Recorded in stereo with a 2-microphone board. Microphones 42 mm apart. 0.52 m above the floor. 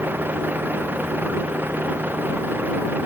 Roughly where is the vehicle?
Right.